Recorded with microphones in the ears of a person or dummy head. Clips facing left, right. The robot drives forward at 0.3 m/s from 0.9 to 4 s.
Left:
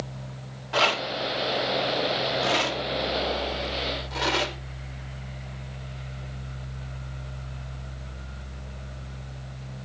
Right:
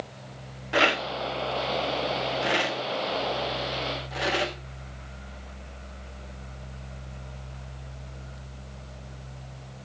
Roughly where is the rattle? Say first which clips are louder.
Right 1 dB; right.